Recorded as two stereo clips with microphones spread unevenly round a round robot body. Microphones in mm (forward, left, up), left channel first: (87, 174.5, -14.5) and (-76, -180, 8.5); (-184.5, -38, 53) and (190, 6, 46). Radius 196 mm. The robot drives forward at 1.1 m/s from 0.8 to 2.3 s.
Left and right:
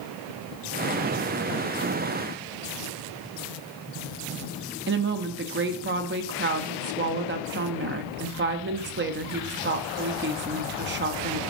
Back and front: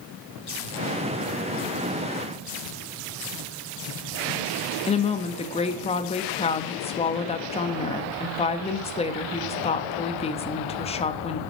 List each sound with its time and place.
4.9 s a woman speaking: 120° right, 1.1 m